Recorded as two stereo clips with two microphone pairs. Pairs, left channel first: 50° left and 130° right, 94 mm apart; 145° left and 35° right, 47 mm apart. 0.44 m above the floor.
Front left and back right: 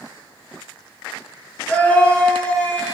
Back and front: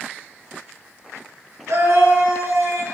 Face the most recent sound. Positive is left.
turn(degrees=-25)